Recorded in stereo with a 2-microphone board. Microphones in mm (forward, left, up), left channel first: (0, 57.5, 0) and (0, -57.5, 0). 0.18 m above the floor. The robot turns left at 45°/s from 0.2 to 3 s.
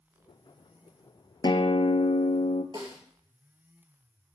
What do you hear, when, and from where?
1.4 s a guitar: 135° left, 0.5 m; by 2.6 s 80° left, 0.5 m
2.7 s a snare drum: 45° right (ahead or behind), 2.5 m; by 3.0 s 35° right (ahead or behind), 2.5 m